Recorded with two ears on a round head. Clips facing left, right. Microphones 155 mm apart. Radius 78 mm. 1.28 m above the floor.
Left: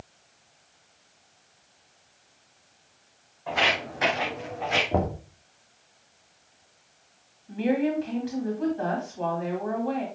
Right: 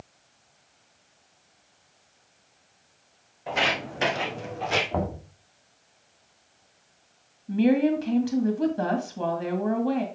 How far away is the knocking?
About 2.5 m.